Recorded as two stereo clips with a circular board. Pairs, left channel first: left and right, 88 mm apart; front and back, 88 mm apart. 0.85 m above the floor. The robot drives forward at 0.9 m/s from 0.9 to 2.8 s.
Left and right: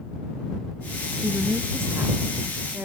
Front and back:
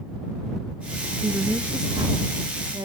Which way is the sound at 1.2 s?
120° right.